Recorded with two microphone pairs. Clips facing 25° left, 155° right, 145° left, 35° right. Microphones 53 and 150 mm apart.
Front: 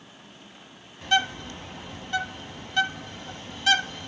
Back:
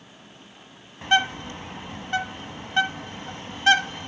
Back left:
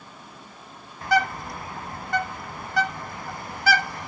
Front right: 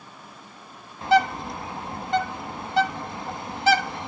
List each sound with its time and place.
1.0 s a bird: 100° right, 1.1 m